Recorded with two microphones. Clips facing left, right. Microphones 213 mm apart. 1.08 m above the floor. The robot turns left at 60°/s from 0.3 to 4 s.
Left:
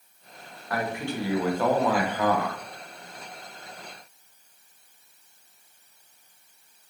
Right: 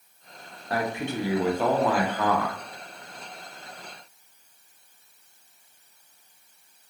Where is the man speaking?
110° right, 0.7 m; by 2.6 s 135° left, 0.7 m.